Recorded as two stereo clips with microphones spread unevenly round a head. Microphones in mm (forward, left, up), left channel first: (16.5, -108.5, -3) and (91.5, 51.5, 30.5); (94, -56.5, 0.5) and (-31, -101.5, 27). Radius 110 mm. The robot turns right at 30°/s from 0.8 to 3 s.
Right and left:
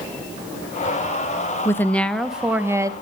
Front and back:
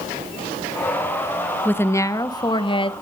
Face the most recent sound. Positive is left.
turn(degrees=-10)